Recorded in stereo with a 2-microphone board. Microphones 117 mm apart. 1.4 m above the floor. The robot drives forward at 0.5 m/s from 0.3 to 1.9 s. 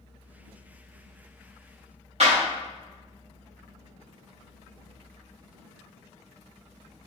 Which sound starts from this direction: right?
A clap, at 2.2 s.